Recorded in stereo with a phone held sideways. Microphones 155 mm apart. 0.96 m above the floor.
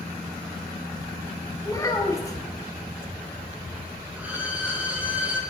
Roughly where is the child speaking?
Left.